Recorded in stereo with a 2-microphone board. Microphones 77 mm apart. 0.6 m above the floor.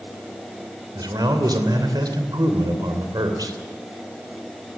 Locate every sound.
0.9 s a man speaking: 65° right (ahead or behind), 2.5 m